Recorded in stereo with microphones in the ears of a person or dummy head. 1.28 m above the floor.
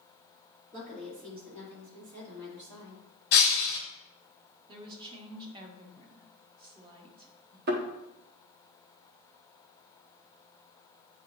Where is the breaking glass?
50° left (ahead or behind), 1.4 m.